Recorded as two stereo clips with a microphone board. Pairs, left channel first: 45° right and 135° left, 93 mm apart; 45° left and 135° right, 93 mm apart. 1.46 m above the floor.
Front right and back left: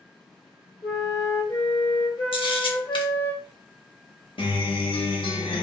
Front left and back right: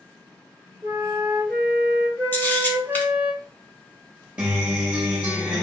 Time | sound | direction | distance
0.8 | a flute | 80° right | 1.1 m
2.3 | a camera shutter | 25° right | 0.7 m
4.4 | a guitar | 60° right | 0.9 m